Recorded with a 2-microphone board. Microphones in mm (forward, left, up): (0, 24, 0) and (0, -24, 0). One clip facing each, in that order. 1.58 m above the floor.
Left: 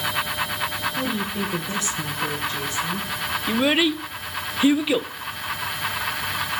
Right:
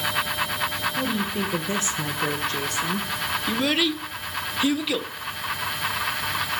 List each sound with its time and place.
1.0 s a woman speaking: 5° left (ahead or behind), 1.5 m; by 3.1 s 75° right (ahead or behind), 2 m
3.5 s a child speaking: 20° left (ahead or behind), 0.6 m